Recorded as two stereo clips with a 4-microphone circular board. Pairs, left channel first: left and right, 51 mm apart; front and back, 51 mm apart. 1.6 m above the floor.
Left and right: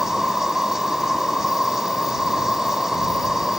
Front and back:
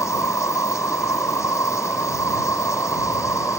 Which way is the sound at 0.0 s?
10° right.